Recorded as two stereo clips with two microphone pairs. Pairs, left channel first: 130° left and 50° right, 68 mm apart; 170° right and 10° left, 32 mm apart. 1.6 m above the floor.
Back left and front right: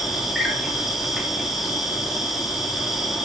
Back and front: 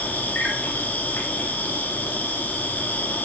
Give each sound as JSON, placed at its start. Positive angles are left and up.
{"t": 0.0, "sound": "an insect", "azimuth_deg": -135, "distance_m": 2.0}